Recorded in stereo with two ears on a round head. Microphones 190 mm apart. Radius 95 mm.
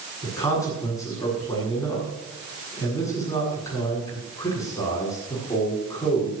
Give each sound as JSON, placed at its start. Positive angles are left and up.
{"t": 0.2, "sound": "a man speaking", "side_deg": 15, "distance_m": 8.5}